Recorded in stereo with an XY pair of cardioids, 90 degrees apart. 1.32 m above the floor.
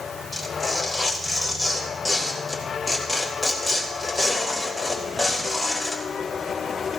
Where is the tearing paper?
5° left, 3 m.